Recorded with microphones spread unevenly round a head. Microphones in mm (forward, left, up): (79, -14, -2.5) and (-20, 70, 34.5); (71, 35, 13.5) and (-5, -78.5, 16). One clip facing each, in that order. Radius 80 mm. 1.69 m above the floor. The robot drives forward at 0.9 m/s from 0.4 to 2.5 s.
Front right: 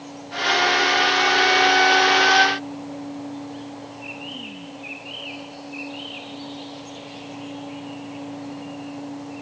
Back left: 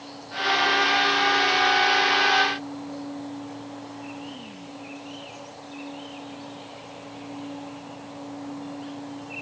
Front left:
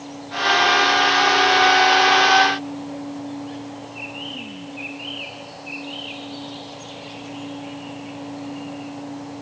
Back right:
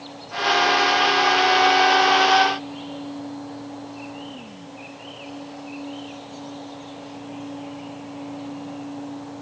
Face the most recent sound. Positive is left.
No sound to turn to.